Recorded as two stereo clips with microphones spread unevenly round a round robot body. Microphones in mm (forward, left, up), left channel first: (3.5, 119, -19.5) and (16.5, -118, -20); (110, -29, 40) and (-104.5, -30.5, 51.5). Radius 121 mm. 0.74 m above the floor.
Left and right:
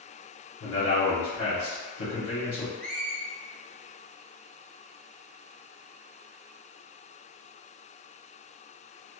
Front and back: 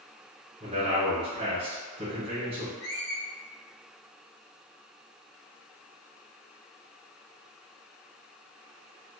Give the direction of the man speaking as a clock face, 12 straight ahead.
8 o'clock.